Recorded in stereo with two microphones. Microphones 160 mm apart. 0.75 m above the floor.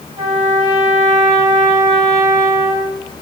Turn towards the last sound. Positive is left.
turn(degrees=-40)  # may be behind; listen again after turning